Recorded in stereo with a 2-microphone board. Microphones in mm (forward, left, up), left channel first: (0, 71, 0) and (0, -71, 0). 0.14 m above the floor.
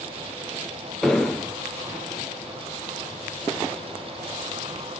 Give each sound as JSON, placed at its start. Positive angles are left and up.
{"t": 1.0, "sound": "an explosion", "side_deg": 5, "distance_m": 0.6}